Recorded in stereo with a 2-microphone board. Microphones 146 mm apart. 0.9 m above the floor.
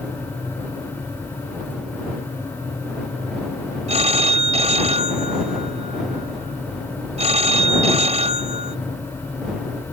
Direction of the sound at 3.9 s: 45° right (ahead or behind).